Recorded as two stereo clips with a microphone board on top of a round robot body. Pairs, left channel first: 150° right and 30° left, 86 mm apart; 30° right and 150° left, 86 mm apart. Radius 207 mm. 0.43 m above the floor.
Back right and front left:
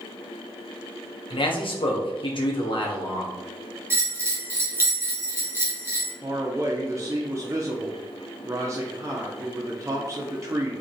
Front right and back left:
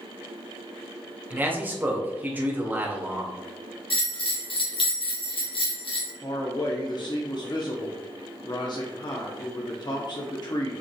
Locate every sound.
1.3 s a man speaking: 140° right, 2 m
3.9 s a bell: 30° right, 2.0 m
6.2 s a man speaking: 15° right, 1.5 m